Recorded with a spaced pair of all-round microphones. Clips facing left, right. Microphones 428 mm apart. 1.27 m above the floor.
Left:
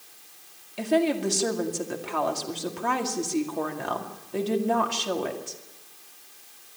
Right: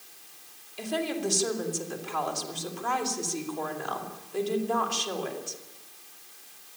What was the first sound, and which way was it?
A woman speaking, 75° left (ahead or behind).